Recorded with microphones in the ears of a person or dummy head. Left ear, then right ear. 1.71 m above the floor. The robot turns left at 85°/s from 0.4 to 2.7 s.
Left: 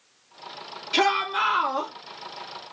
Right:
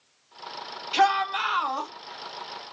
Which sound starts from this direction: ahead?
A shout, at 0.9 s.